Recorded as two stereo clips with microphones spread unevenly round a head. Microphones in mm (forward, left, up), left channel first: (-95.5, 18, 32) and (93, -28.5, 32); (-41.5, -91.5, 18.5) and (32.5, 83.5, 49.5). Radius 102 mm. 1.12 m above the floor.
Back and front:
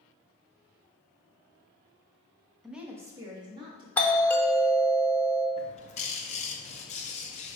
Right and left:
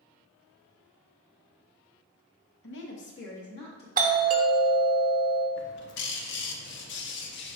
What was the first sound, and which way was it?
A woman speaking, 105° right.